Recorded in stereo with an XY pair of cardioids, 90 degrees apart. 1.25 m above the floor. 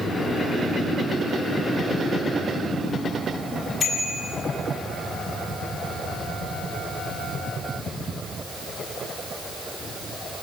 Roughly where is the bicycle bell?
Ahead left.